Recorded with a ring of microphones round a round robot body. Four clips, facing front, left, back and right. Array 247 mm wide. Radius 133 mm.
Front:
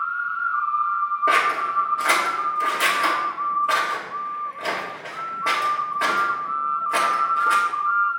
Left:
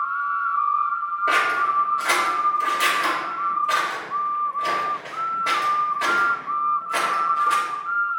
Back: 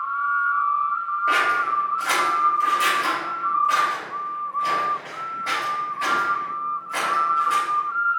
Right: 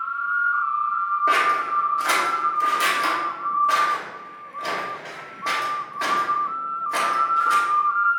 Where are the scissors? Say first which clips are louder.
Left 2 dB, back 2 dB; 20° right, 1.8 m.